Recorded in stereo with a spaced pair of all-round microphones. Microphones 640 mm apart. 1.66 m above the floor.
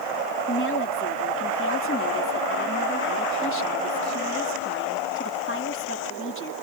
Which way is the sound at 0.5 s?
20° left (ahead or behind).